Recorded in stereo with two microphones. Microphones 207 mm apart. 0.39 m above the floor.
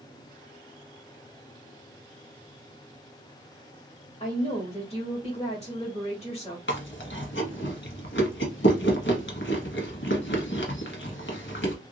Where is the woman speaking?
30° left (ahead or behind), 1.8 m.